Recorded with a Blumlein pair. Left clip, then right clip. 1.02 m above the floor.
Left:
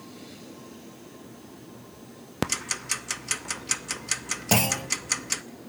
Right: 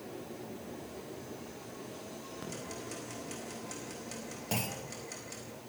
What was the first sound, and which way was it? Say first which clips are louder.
Ticking: left 16 dB; 40° left.